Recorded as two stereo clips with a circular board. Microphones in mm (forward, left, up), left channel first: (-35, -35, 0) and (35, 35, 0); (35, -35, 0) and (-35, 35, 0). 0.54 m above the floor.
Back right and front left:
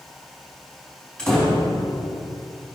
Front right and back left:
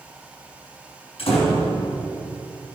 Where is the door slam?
55° right, 4 m.